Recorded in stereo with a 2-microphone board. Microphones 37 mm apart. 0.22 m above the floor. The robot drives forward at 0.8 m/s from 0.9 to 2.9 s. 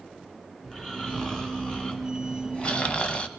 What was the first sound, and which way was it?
Snoring, 15° left (ahead or behind).